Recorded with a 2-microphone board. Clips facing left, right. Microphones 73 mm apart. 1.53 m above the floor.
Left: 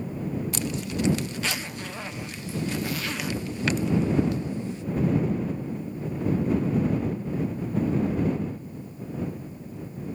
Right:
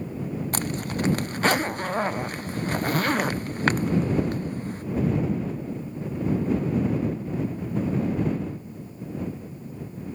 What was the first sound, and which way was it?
A zipper, 50° right (ahead or behind).